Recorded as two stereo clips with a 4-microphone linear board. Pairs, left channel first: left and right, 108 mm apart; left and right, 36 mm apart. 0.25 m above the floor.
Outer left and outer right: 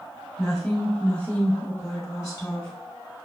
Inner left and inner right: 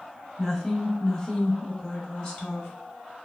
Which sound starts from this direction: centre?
A woman speaking, at 0.4 s.